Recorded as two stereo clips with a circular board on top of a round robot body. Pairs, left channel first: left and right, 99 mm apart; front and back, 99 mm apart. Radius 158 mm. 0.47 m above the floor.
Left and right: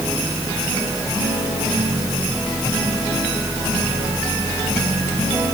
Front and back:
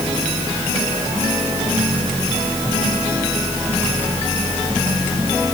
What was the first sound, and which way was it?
Only background noise.